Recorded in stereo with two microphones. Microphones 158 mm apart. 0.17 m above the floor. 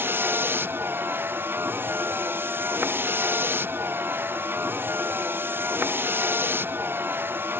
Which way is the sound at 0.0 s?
10° right (ahead or behind).